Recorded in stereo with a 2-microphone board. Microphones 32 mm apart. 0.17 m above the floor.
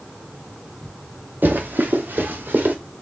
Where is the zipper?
No zipper in this recording.